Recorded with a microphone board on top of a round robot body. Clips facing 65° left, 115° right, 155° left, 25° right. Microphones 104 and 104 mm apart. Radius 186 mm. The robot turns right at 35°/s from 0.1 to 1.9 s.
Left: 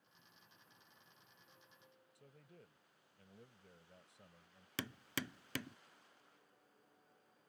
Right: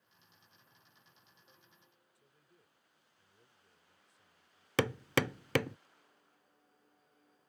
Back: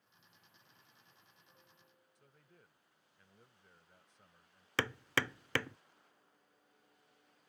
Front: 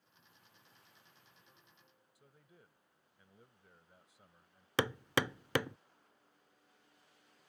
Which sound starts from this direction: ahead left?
A man speaking, at 2.1 s.